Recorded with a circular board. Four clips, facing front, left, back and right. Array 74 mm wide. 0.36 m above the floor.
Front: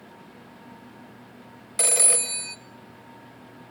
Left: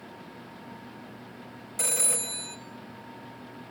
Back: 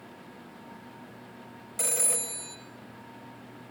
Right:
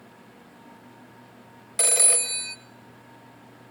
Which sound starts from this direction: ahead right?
A phone ringing, at 1.8 s.